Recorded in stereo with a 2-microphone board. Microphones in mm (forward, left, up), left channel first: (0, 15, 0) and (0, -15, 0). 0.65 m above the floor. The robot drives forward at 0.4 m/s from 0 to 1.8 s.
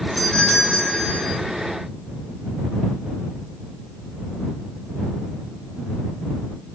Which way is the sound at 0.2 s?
25° left (ahead or behind).